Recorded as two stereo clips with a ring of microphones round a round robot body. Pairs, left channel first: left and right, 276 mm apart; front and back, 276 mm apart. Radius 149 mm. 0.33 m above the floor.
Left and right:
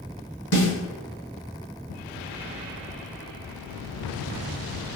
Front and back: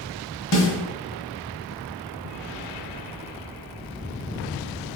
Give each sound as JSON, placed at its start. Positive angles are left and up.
{"t": 0.5, "sound": "a snare drum", "azimuth_deg": 35, "distance_m": 1.7}